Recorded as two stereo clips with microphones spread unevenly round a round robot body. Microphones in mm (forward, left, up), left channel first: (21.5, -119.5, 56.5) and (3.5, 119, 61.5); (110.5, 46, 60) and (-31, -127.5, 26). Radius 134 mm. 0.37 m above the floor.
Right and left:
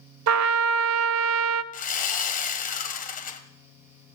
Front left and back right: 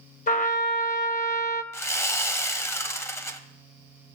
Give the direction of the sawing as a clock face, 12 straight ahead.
1 o'clock.